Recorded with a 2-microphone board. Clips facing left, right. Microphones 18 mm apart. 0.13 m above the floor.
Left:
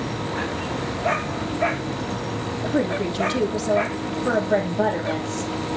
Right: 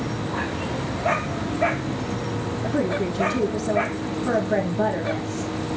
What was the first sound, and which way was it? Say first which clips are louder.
A woman speaking: left 1 dB; 40° left (ahead or behind).